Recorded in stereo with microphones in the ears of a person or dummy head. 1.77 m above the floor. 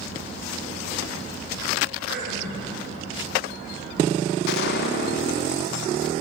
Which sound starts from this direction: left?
A gunshot, at 4.5 s.